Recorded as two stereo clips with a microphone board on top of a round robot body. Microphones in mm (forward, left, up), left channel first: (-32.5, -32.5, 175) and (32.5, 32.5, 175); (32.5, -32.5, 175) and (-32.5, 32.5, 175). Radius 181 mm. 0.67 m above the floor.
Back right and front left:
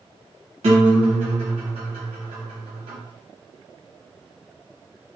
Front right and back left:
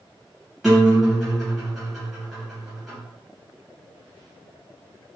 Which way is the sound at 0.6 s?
45° left.